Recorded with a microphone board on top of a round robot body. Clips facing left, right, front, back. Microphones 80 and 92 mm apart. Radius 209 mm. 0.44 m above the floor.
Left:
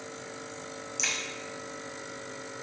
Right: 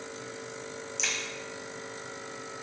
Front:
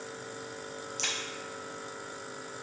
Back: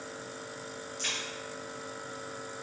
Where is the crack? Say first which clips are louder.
Even, front 2 dB; straight ahead, 1.4 m.